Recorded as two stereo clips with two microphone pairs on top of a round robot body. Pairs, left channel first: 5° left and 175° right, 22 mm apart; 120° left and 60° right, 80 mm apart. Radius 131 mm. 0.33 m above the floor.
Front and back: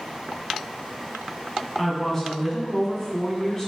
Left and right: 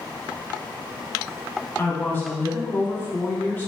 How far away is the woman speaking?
About 1.3 m.